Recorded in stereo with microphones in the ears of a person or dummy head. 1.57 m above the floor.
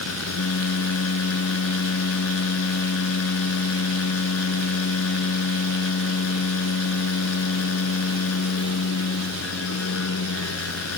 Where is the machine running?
80° left.